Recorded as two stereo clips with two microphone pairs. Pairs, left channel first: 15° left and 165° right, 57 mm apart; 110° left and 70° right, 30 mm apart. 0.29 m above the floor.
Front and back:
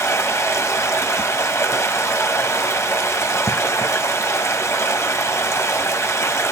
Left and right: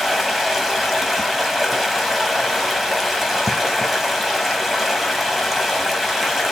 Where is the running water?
20° left, 1.0 m.